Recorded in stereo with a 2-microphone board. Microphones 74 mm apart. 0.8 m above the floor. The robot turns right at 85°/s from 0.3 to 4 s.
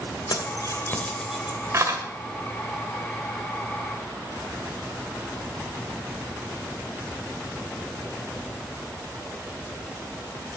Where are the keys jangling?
85° left, 2.5 m; by 2.0 s 60° right (ahead or behind), 2.5 m.